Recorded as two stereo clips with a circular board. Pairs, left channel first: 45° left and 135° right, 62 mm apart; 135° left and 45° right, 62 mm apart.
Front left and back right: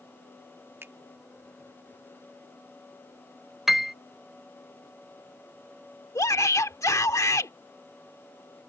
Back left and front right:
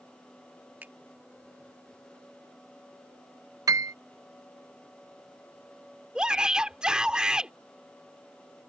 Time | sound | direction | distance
0.8 | a finger snap | 95° right | ?
3.7 | a piano | 50° right | ?
6.2 | a shout | 30° left | ?